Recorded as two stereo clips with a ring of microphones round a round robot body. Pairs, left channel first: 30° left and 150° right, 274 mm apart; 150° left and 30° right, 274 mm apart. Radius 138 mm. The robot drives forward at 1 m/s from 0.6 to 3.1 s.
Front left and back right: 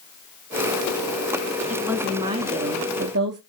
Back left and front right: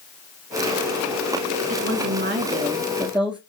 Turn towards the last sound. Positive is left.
turn(degrees=-115)